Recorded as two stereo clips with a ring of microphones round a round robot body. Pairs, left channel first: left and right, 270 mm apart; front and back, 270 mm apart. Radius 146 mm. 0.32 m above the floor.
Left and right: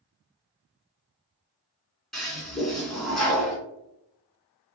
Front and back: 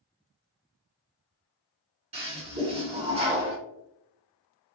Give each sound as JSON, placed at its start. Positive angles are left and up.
{"t": 2.1, "sound": "a toilet flushing", "azimuth_deg": 180, "distance_m": 1.5}